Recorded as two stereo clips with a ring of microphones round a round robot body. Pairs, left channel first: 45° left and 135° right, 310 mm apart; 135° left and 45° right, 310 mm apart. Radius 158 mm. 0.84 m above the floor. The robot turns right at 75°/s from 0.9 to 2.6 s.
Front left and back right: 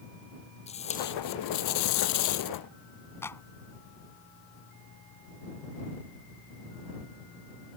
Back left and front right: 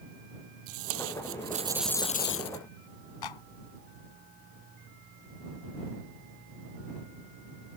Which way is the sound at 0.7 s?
25° right.